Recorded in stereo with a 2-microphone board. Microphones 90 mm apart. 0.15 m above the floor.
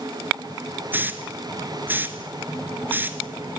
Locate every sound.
0.9 s a hiss: 20° right (ahead or behind), 1.1 m